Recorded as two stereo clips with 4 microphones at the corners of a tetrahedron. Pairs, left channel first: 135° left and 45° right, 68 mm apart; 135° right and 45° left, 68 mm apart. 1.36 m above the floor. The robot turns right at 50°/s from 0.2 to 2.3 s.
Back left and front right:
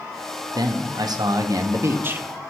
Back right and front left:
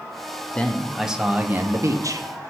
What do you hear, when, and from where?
0.6 s a man speaking: 65° right, 0.7 m; by 2.3 s 20° left, 0.7 m